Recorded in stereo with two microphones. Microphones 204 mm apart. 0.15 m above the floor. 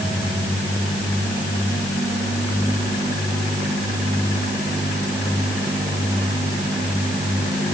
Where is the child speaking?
I don't hear a child speaking.